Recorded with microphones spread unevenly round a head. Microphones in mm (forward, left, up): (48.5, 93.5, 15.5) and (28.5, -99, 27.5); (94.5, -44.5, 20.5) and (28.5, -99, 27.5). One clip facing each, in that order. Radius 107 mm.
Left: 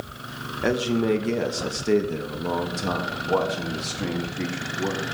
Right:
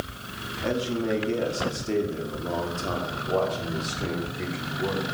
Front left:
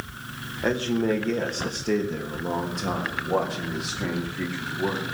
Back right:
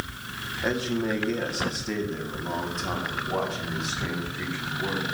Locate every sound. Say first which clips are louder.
0.6 s a man speaking: left 4 dB, front left 3 dB; 100° left, 2.5 m; by 5.1 s 75° left, 4.5 m